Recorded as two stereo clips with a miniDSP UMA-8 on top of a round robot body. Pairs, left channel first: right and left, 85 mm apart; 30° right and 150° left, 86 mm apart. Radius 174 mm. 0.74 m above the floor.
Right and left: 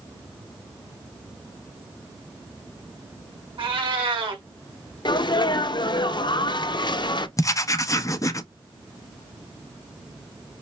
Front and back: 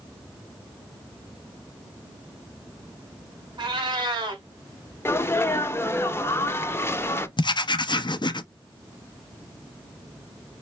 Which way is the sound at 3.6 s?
115° left.